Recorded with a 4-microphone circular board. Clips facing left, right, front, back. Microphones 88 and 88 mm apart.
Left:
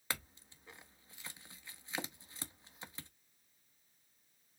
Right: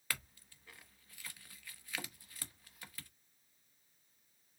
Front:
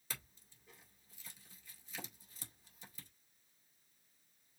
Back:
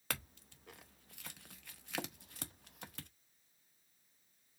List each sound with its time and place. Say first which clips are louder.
0.1 s a clink: left 2 dB, back 7 dB; 160° left, 0.7 m